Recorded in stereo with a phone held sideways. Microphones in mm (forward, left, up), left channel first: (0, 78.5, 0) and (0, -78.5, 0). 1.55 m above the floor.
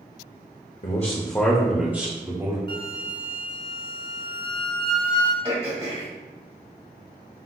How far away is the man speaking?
About 0.7 m.